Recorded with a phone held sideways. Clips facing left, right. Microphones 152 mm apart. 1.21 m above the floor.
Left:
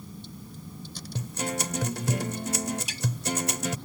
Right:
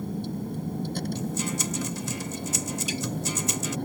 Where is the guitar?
65° left (ahead or behind).